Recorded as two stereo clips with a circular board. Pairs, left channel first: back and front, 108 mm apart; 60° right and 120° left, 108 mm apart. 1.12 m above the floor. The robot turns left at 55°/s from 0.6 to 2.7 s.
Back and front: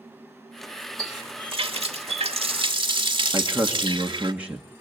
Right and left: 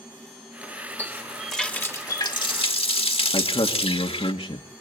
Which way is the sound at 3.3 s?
75° right.